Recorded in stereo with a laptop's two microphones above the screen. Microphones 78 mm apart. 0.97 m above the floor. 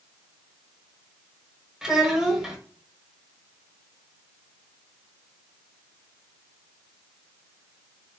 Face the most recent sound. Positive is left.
turn(degrees=-5)  # may be behind; listen again after turning